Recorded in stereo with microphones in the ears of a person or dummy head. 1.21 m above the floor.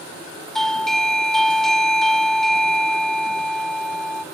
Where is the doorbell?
5° right (ahead or behind), 1.0 m.